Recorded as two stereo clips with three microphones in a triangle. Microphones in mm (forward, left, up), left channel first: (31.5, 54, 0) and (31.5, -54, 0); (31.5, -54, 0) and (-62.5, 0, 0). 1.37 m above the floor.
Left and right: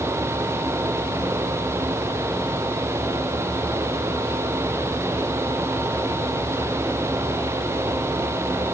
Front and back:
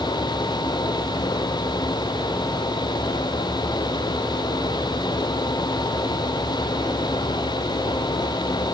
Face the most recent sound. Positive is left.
No sound to turn to.